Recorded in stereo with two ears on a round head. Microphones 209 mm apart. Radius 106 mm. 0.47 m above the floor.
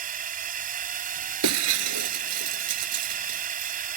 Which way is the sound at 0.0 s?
35° right (ahead or behind).